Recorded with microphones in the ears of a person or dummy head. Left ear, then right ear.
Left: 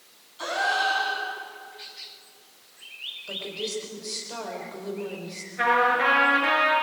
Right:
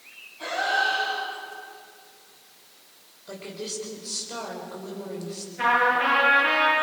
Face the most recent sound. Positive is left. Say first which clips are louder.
# even
turn(degrees=40)  # may be behind; listen again after turning